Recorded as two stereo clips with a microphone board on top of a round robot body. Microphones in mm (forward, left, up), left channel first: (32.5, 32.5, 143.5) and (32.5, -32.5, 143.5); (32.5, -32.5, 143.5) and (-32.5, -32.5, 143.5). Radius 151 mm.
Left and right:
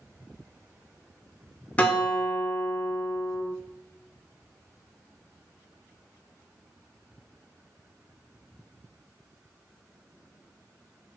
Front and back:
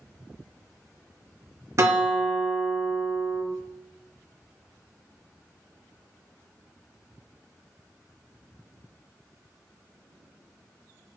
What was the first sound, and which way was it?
A guitar, 155° left.